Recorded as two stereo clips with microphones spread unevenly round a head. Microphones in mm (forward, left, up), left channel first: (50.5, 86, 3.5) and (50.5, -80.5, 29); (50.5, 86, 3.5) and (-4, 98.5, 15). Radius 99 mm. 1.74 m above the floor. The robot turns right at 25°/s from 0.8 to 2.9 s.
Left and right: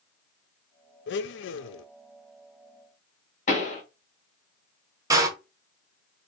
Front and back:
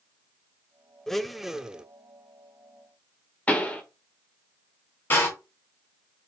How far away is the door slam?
About 0.9 m.